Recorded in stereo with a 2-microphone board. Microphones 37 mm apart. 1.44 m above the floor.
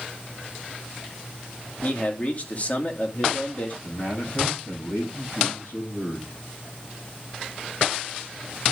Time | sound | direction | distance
1.8 | a man speaking | 40° left (ahead or behind) | 2 m
3.8 | a man speaking | 65° left (ahead or behind) | 9 m